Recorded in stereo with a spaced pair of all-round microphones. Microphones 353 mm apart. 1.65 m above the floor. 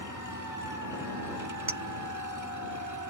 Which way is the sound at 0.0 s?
55° right (ahead or behind).